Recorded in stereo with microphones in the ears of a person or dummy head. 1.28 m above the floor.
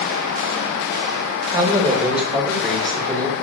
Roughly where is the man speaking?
Centre.